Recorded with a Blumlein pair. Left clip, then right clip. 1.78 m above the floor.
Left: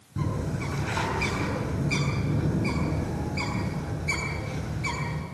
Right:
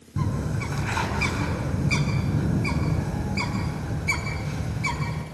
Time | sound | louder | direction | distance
0.2 | a bird | right 1 dB | 10° right | 6.5 m